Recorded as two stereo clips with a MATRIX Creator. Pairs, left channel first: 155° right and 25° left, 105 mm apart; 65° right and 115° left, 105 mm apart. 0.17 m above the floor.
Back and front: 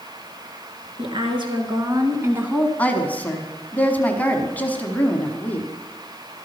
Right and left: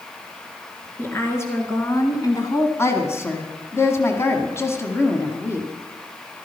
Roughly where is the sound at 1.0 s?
Ahead.